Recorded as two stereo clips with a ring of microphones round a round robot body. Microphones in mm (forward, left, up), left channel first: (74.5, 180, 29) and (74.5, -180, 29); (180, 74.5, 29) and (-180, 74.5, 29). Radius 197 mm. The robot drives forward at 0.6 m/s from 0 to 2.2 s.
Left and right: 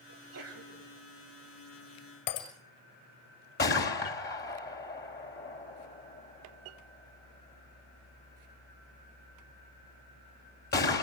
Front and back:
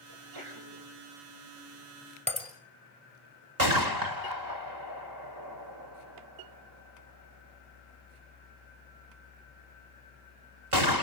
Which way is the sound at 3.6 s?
155° left.